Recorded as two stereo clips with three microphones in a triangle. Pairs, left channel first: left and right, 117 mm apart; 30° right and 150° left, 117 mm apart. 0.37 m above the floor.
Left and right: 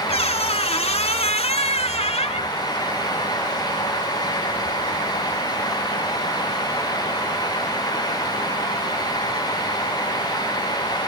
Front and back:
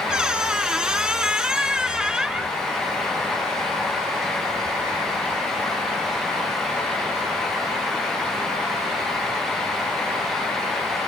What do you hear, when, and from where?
0.1 s a squeak: 65° left, 0.5 m